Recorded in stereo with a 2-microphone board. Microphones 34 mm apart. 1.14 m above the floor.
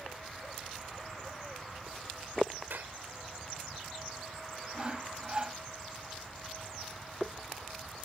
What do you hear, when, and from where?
2.7 s a clap: 85° right
4.7 s sawing: 30° right (ahead or behind)